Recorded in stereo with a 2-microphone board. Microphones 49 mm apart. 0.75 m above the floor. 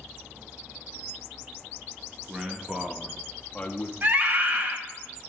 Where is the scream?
30° right (ahead or behind), 0.7 m.